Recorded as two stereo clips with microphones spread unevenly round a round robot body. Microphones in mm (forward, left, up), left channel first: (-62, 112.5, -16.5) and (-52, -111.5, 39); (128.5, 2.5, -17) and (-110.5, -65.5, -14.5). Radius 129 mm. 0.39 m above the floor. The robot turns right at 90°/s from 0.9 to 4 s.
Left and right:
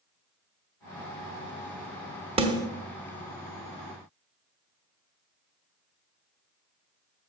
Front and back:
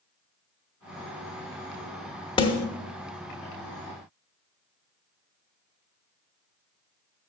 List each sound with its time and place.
2.4 s a snare drum: 25° right, 0.9 m; by 2.7 s 5° left, 0.9 m